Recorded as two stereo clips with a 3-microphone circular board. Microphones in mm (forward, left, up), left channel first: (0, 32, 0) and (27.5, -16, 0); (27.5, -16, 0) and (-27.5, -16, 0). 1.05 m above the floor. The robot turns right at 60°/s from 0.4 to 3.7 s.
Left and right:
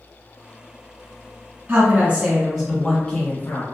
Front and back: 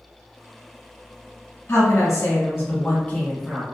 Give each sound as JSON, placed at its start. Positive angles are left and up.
{"t": 1.7, "sound": "a woman speaking", "azimuth_deg": -25, "distance_m": 1.2}